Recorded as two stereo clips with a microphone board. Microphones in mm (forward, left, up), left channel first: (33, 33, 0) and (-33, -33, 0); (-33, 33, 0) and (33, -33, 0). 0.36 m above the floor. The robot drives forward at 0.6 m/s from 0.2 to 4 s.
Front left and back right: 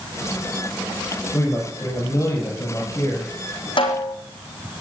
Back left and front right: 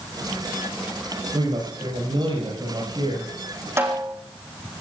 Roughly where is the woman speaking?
Ahead.